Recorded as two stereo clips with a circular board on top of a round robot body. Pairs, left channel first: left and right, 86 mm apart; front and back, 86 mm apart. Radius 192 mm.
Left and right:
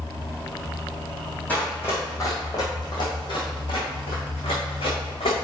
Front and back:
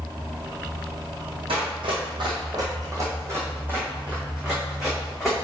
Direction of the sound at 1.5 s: 165° left.